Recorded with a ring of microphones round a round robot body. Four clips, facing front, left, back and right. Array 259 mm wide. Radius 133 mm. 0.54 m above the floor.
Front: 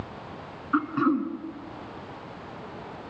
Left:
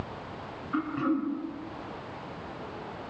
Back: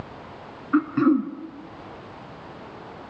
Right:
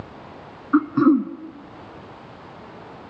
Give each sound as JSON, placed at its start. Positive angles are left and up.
{"t": 0.7, "sound": "throat clearing", "azimuth_deg": -110, "distance_m": 1.7}